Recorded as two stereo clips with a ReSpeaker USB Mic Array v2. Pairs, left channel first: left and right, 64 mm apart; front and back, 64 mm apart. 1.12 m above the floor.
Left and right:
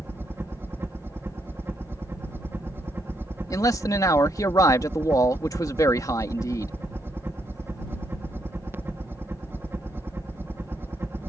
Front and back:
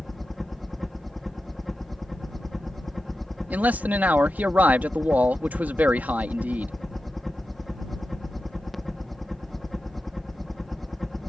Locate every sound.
0.0 s a helicopter: 85° right
3.5 s a man speaking: 120° left